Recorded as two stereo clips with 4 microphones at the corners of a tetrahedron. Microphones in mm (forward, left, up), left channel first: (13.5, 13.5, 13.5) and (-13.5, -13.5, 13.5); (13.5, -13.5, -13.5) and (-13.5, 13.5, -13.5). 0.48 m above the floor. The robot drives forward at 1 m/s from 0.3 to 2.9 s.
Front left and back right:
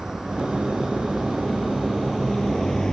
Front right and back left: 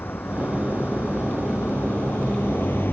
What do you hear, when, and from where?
0.0 s a vehicle: 60° right; by 2.9 s 30° right